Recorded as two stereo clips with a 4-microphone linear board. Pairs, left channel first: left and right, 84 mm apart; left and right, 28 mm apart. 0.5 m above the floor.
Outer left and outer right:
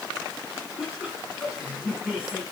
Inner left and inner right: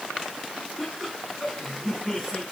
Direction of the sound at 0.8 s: 10° right (ahead or behind).